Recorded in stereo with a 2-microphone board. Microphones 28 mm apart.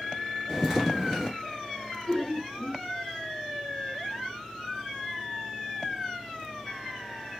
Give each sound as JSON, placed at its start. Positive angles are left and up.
{"t": 0.5, "sound": "footsteps", "side_deg": 5, "distance_m": 1.2}
{"t": 2.1, "sound": "laughter", "side_deg": 20, "distance_m": 0.5}